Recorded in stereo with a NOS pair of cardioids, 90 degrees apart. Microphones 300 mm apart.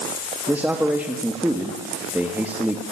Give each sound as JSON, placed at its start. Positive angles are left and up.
{"t": 0.5, "sound": "a man speaking", "azimuth_deg": -5, "distance_m": 2.0}